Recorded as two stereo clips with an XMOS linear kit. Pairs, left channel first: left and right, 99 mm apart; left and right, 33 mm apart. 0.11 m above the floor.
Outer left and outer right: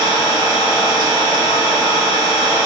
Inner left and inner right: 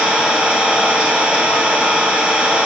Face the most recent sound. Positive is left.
turn(degrees=-45)  # may be behind; listen again after turning